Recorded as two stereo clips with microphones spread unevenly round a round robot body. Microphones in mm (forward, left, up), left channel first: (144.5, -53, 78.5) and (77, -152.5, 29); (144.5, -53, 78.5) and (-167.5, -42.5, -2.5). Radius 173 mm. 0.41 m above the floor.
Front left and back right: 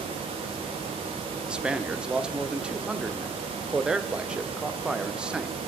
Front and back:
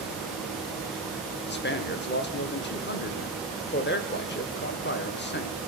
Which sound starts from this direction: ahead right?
A man speaking, at 1.5 s.